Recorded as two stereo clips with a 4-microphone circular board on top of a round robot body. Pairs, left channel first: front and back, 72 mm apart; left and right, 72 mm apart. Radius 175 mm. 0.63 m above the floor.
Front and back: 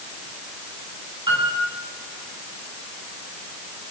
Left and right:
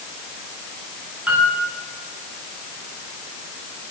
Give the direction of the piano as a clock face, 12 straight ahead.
5 o'clock.